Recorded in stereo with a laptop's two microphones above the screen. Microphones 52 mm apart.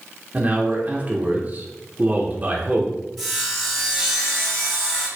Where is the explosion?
I don't hear an explosion.